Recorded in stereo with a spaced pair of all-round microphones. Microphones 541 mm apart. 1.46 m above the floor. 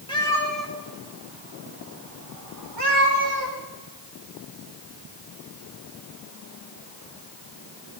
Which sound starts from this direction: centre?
A cat meowing, at 0.1 s.